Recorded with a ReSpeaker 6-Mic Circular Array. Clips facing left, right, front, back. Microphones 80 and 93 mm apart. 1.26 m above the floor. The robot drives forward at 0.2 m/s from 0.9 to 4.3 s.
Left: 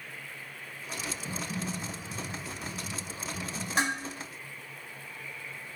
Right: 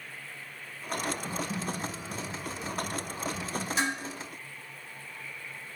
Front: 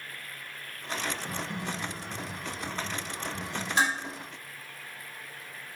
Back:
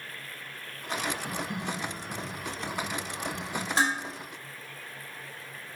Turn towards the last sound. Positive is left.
turn(degrees=130)